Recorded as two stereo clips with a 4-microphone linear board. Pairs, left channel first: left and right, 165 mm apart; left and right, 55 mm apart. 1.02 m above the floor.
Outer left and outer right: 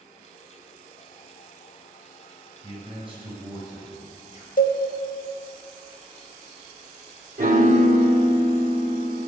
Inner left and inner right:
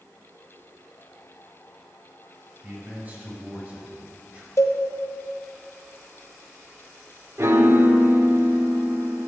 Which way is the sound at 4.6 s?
60° left (ahead or behind).